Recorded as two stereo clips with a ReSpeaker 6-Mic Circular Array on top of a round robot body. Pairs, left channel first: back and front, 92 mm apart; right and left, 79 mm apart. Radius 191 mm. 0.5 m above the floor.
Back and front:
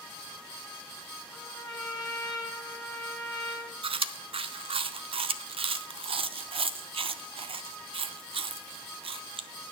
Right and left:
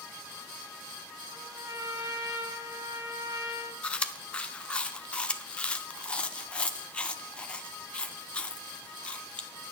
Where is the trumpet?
130° left, 1.8 m.